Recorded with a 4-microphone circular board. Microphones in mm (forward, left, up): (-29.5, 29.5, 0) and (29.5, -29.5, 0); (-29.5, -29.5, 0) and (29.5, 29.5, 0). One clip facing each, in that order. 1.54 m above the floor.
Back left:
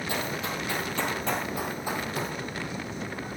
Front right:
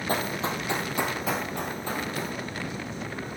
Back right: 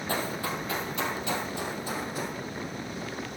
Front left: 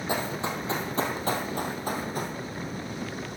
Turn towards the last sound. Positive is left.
turn(degrees=70)